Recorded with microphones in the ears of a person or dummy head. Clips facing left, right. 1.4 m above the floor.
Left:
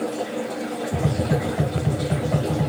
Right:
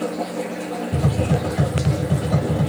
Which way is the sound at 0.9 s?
15° right (ahead or behind).